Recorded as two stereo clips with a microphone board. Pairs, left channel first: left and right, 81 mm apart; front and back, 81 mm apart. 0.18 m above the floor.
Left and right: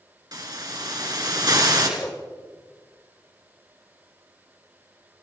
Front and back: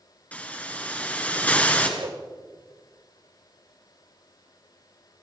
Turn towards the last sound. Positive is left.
turn(degrees=160)